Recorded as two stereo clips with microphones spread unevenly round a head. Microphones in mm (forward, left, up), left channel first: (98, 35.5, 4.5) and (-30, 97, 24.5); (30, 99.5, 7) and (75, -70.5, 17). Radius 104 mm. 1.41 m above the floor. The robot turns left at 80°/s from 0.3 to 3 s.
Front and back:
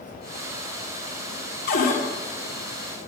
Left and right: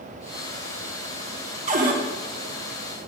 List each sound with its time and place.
1.7 s a cupboard door: 30° right, 1.4 m; by 2.0 s 60° right, 1.4 m